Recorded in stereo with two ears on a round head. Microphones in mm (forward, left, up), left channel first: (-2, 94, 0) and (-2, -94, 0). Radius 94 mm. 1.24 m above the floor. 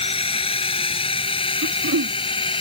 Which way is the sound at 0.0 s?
25° left (ahead or behind).